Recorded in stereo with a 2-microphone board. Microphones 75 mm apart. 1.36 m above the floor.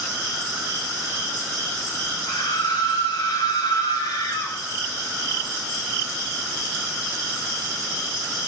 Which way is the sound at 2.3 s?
85° left.